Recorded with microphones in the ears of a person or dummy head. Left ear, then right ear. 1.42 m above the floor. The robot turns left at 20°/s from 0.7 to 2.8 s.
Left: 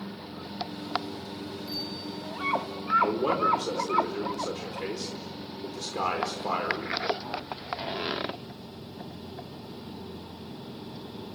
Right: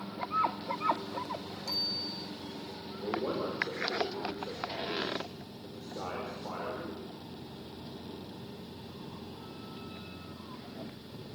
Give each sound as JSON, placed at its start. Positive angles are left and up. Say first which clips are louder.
{"t": 1.7, "sound": "a bicycle bell", "louder": "right 4 dB", "side_deg": -50, "distance_m": 8.5}
{"t": 3.0, "sound": "a man speaking", "louder": "left 9 dB", "side_deg": 85, "distance_m": 4.5}